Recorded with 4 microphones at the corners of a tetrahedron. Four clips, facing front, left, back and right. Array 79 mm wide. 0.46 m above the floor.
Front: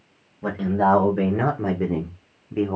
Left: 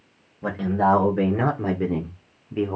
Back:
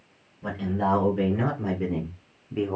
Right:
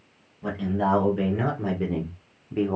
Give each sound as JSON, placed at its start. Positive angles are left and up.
{"t": 0.4, "sound": "a man speaking", "azimuth_deg": 40, "distance_m": 1.7}